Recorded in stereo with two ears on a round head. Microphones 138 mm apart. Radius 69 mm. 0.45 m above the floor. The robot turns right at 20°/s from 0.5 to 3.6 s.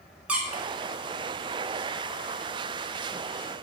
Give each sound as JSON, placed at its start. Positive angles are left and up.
{"t": 0.3, "sound": "a squeak", "side_deg": -10, "distance_m": 0.5}